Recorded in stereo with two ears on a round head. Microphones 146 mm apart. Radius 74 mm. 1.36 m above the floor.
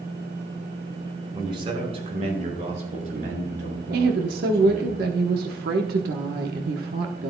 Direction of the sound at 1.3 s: 25° right (ahead or behind).